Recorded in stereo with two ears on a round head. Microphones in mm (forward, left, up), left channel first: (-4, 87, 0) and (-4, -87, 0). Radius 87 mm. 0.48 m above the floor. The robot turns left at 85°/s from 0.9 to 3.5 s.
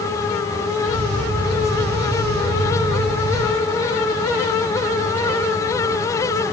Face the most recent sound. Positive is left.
No sound to turn to.